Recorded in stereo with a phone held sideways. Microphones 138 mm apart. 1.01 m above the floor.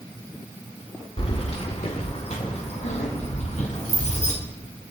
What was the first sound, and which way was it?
Keys jangling, 45° left (ahead or behind).